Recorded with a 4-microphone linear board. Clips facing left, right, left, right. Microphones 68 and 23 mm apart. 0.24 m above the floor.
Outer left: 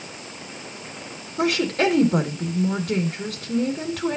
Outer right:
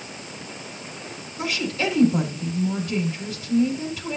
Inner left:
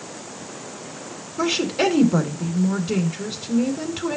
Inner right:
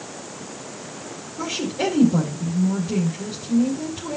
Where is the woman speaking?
60° left (ahead or behind), 2.5 m.